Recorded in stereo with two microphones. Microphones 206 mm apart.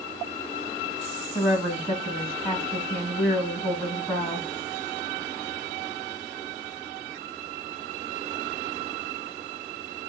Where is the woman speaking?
15° left (ahead or behind), 1.4 m.